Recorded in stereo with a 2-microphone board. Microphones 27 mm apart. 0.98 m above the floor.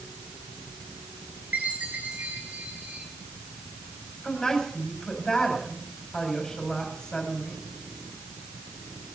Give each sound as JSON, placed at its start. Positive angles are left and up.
{"t": 1.5, "sound": "a chime", "side_deg": -85, "distance_m": 4.0}
{"t": 4.2, "sound": "a woman speaking", "side_deg": 25, "distance_m": 5.0}